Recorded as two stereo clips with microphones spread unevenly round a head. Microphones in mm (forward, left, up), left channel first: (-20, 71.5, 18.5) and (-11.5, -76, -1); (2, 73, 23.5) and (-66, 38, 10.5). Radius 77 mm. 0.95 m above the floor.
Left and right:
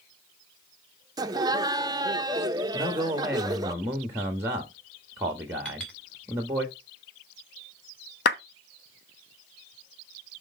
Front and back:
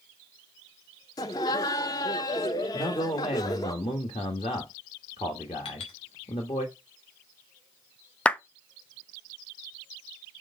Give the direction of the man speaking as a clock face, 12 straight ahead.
12 o'clock.